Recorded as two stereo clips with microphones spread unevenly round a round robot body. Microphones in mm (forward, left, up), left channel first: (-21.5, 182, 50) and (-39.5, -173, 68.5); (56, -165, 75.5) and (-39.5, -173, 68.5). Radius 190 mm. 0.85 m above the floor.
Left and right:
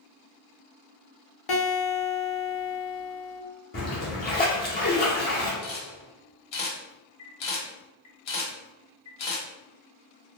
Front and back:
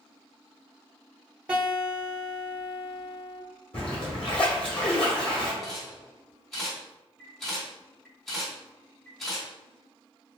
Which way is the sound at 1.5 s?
110° left.